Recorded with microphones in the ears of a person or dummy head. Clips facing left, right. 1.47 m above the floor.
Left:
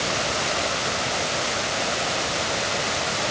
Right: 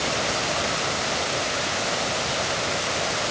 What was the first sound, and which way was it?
Only background noise.